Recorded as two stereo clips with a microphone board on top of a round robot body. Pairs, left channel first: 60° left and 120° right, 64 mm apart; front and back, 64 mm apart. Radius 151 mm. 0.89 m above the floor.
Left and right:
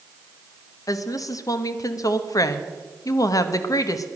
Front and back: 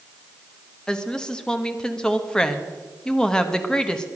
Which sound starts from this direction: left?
A woman speaking, at 0.9 s.